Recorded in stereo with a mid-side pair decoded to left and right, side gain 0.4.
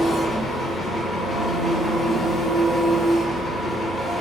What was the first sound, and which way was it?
An engine running, 50° left.